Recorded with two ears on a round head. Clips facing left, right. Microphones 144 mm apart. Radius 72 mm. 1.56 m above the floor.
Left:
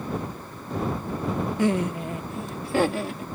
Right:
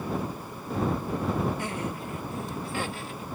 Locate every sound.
1.6 s laughter: 60° left (ahead or behind); by 3.2 s 50° left (ahead or behind)